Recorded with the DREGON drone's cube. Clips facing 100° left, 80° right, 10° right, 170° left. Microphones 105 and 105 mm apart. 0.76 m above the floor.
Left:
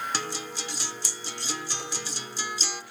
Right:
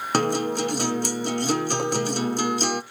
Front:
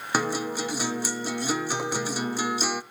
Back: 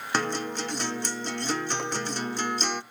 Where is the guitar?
95° right, 0.5 m.